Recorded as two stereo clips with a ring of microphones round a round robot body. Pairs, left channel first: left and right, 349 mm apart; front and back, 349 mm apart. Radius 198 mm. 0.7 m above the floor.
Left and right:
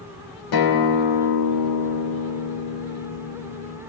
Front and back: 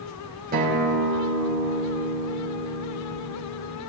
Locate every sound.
0.5 s a guitar: 115° left, 2.5 m